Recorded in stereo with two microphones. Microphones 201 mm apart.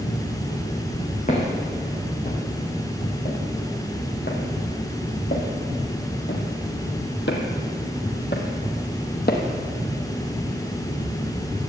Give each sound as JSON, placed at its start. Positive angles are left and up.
{"t": 1.3, "sound": "footsteps", "side_deg": 40, "distance_m": 4.0}